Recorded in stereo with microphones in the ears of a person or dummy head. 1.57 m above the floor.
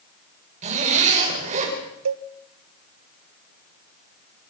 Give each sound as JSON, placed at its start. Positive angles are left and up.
{"t": 0.6, "sound": "a zipper", "side_deg": -35, "distance_m": 5.5}
{"t": 2.0, "sound": "a cowbell", "side_deg": -70, "distance_m": 1.0}